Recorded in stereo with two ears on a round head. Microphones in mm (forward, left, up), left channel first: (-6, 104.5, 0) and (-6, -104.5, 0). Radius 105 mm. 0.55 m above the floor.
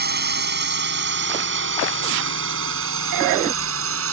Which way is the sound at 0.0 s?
45° right (ahead or behind).